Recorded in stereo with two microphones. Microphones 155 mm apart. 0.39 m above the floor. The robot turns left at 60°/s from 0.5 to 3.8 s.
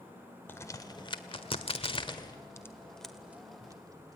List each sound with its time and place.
0.5 s a crack: 15° left (ahead or behind), 1.5 m; by 4.2 s 25° right (ahead or behind), 1.5 m